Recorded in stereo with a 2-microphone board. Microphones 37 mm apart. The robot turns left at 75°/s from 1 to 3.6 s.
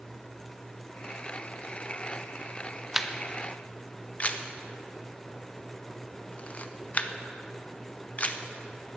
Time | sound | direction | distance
2.9 | a camera shutter | 10° right (ahead or behind) | 0.6 m